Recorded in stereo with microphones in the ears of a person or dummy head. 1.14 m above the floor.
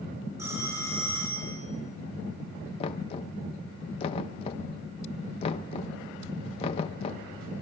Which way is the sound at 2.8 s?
35° left (ahead or behind).